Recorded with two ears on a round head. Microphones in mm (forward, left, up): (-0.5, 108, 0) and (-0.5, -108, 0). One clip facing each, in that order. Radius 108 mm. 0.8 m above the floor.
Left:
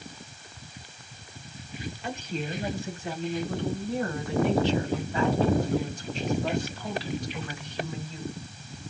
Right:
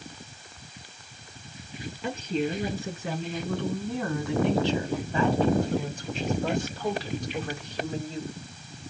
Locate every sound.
2.0 s a woman speaking: 60° right (ahead or behind), 8.5 m; by 8.3 s 25° right (ahead or behind), 3.5 m